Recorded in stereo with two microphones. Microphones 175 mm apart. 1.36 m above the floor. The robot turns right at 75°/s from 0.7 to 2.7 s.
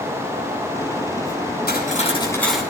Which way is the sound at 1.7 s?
115° left.